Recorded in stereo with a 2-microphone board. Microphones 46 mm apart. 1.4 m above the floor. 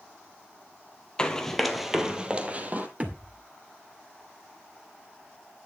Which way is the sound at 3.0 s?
35° right (ahead or behind).